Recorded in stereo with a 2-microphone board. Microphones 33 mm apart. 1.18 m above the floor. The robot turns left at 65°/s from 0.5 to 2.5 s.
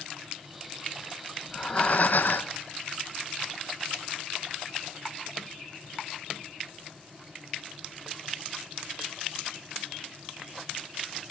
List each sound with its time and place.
1.4 s breathing: 160° left, 1.1 m; by 2.6 s 90° left, 1.1 m